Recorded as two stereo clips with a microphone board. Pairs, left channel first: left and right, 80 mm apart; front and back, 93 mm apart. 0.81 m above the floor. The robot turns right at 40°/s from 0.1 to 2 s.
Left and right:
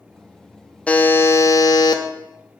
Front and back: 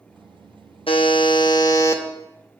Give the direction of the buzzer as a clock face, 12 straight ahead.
12 o'clock.